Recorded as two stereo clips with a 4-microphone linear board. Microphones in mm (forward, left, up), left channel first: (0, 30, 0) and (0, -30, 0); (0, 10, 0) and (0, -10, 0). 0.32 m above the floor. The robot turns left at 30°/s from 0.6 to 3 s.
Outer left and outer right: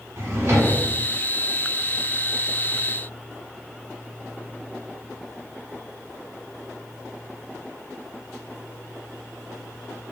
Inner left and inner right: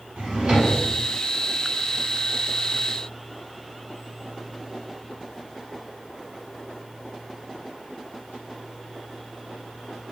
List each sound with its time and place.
0.2 s a drawer: 45° right (ahead or behind), 1.2 m; by 0.8 s 40° right (ahead or behind), 1.2 m